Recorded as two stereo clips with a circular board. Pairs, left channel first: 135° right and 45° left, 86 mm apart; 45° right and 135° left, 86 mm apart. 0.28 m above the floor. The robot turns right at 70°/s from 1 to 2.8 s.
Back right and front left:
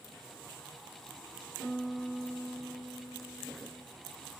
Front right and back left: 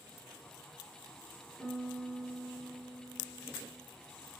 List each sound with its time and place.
1.6 s a piano: 65° right, 3 m; by 3.9 s 15° left, 3 m